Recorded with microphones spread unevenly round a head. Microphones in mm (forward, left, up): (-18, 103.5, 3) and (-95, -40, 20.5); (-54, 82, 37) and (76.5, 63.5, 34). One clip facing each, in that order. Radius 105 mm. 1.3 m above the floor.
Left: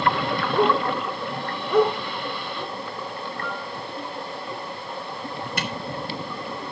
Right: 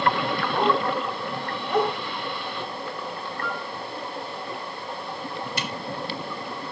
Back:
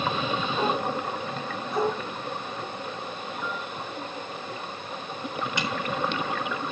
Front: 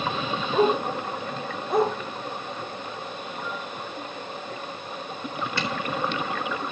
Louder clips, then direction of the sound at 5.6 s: Left 5 dB, front 2 dB; 100° left.